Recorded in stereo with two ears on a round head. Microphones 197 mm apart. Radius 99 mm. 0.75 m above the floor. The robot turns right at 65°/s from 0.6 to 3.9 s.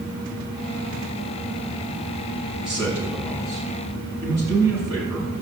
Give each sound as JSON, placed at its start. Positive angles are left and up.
{"t": 2.6, "sound": "a man speaking", "azimuth_deg": -95, "distance_m": 6.5}